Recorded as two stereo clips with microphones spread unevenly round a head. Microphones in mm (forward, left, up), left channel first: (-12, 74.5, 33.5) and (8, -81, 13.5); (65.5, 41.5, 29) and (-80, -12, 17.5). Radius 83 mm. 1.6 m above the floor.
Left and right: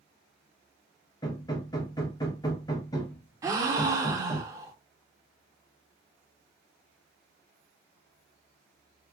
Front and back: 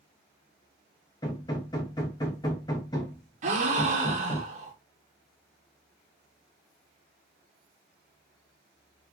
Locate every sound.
1.2 s hammering: 60° left, 0.7 m
3.4 s a gasp: 155° right, 0.7 m